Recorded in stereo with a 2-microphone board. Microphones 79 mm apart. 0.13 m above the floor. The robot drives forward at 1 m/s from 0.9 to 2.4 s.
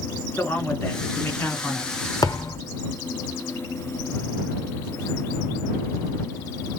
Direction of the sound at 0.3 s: 20° left (ahead or behind).